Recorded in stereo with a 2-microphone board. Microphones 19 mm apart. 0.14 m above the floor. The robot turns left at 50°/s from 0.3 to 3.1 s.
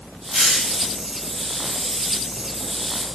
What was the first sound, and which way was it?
A hiss, 80° right.